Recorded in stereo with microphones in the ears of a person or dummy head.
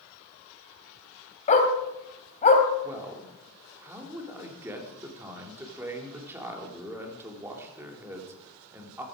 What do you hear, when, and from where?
1.5 s a dog barking: 40° left (ahead or behind), 2.5 m
2.8 s a man speaking: 15° right (ahead or behind), 3 m